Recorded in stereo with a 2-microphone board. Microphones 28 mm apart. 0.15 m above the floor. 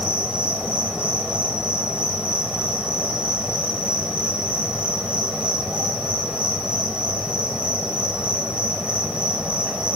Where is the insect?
55° right (ahead or behind), 1.1 m.